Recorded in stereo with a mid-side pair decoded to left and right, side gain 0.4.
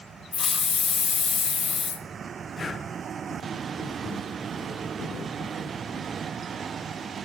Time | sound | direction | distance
0.3 | a hiss | 45° left | 0.5 m
2.6 | breathing | 45° left | 0.6 m